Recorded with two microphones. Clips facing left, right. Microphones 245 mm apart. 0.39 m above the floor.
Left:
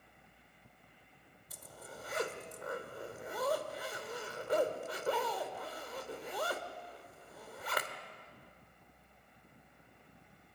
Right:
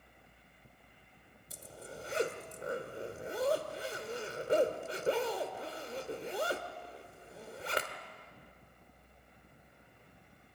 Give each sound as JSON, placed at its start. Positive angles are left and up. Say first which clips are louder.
{"t": 1.5, "sound": "a zipper", "louder": "right 4 dB", "side_deg": -25, "distance_m": 1.4}